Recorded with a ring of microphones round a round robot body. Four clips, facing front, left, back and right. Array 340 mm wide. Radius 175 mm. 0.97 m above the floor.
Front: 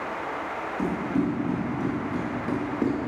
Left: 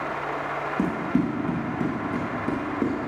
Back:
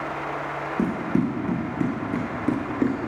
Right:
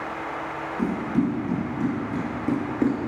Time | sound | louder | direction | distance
0.8 | running footsteps | right 1 dB, back 2 dB | 145° left | 2.0 m